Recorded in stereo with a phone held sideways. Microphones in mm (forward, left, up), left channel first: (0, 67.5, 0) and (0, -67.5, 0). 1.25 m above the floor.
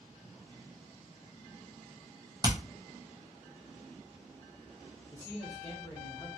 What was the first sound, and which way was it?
Hammering, 30° right (ahead or behind).